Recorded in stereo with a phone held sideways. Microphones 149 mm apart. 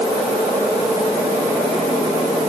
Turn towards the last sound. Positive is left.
No sound to turn to.